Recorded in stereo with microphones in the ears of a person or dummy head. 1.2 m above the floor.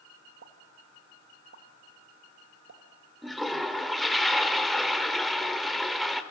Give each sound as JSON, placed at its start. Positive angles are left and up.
{"t": 0.4, "sound": "a pop", "side_deg": -70, "distance_m": 2.5}
{"t": 3.2, "sound": "a toilet flushing", "side_deg": 0, "distance_m": 1.6}